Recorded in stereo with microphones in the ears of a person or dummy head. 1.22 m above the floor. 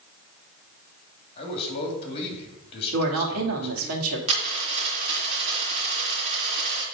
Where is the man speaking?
35° left (ahead or behind), 3 m.